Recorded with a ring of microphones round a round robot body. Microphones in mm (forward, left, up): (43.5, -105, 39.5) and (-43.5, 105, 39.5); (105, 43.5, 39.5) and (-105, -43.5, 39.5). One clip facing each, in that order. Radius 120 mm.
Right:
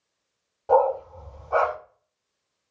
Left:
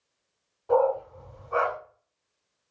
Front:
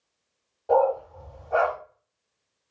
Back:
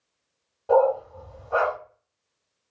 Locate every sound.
0.7 s a dog barking: 80° right, 1.6 m